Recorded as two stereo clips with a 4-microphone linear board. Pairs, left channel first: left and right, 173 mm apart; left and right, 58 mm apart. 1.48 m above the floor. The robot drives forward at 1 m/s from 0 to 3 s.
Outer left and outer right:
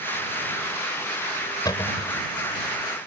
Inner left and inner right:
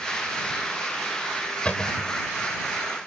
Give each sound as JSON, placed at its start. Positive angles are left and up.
{"t": 1.6, "sound": "a cupboard door", "side_deg": 20}